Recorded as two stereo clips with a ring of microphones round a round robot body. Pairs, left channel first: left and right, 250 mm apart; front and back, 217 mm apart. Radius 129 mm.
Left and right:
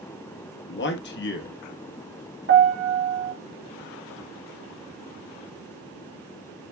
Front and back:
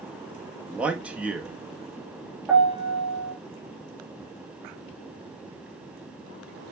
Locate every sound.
0.7 s a man speaking: 100° left, 1.1 m
2.5 s a piano: 95° right, 1.7 m